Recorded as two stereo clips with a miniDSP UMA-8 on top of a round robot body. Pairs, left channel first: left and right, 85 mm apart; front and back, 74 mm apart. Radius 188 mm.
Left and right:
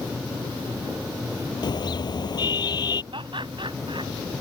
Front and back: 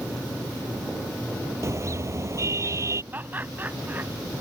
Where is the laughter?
115° right.